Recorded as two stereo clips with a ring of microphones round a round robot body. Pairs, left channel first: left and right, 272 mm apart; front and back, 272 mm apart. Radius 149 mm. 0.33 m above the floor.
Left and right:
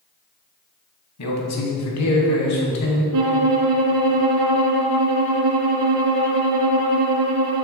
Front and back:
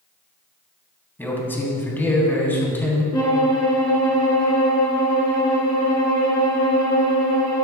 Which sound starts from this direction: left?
A man speaking, at 1.2 s.